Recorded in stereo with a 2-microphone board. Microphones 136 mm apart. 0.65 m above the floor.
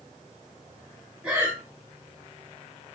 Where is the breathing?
5° right (ahead or behind), 1.2 m.